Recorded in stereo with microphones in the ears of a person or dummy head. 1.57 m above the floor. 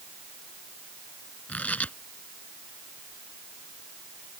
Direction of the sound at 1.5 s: 5° left (ahead or behind).